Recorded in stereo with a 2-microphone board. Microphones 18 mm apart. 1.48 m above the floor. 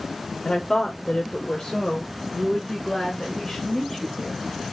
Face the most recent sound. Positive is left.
turn(degrees=20)  # may be behind; listen again after turning